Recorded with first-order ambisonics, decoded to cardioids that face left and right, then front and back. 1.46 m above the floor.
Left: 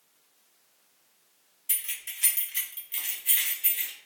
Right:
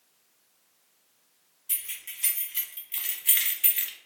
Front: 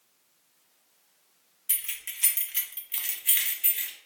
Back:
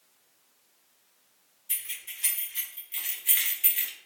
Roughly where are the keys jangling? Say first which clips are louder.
Left 2 dB, front 2 dB; ahead left.